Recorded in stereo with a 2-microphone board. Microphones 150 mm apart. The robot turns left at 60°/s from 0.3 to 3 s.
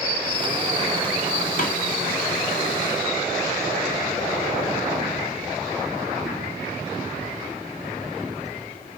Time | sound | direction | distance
1.6 | a snare drum | 60° left (ahead or behind) | 1.9 m